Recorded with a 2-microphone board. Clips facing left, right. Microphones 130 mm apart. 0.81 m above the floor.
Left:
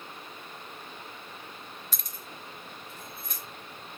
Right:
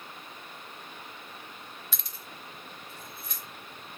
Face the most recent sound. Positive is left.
turn(degrees=50)  # may be behind; listen again after turning